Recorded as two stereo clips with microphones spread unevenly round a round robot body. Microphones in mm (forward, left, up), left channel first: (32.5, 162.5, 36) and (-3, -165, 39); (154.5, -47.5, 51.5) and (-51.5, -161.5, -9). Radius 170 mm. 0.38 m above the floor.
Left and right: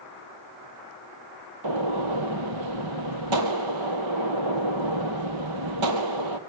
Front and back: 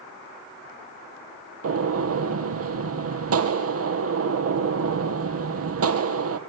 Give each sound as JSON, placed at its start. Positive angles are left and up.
{"t": 1.6, "sound": "a gunshot", "azimuth_deg": -125, "distance_m": 2.5}